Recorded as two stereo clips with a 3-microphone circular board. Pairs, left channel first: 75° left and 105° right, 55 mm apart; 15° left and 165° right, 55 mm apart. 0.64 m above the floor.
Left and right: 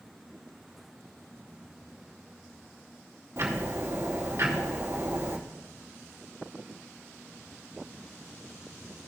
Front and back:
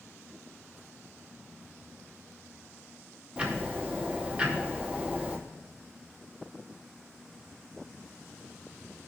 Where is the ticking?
100° right, 1.8 m.